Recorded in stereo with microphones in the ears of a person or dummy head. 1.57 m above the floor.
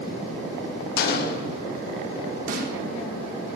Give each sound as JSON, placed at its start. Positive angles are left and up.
{"t": 1.0, "sound": "a gunshot", "side_deg": 45, "distance_m": 0.6}
{"t": 2.5, "sound": "a snare drum", "side_deg": -35, "distance_m": 0.6}